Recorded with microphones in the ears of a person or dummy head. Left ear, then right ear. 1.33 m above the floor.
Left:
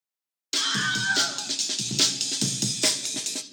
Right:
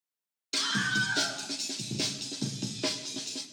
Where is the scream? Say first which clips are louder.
Left 3 dB; 20° left (ahead or behind), 2.5 m; by 3.4 s 55° left (ahead or behind), 1.1 m.